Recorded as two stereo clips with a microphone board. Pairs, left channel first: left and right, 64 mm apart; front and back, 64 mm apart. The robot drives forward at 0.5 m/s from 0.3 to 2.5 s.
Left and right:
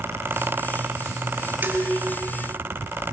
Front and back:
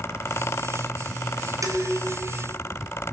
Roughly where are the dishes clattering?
Behind right.